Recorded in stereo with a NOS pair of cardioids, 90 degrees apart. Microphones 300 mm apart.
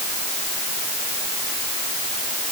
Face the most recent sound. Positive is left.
No sound to turn to.